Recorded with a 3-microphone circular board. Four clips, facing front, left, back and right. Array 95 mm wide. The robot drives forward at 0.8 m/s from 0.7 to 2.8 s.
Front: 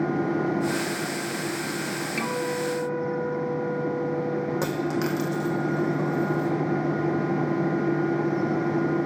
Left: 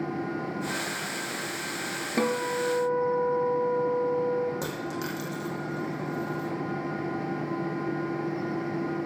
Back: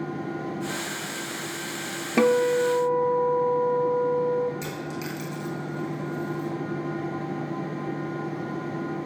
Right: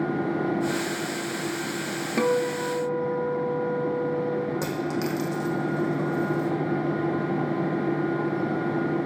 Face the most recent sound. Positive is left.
turn(degrees=-15)